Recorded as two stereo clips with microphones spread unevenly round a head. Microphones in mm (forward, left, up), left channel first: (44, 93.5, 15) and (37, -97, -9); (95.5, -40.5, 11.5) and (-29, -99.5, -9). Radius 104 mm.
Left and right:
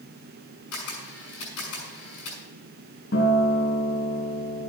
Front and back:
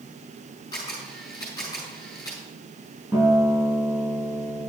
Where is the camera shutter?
100° left, 5.5 m.